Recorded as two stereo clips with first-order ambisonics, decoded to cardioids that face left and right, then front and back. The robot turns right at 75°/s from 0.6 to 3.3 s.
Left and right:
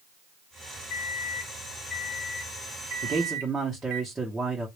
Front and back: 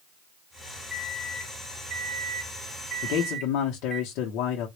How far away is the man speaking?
About 0.7 m.